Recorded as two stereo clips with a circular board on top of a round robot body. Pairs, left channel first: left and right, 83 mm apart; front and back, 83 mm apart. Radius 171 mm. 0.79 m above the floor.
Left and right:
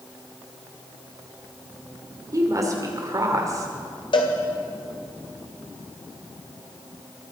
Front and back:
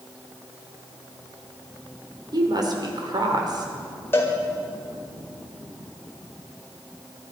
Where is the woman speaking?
140° right, 2.5 m.